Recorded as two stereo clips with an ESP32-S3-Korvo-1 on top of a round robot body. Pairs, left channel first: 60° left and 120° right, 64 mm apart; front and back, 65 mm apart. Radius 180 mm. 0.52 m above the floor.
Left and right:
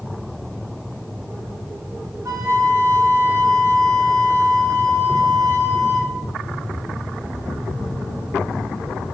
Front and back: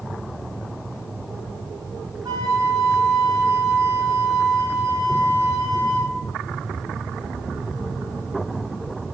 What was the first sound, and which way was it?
A flute, 160° right.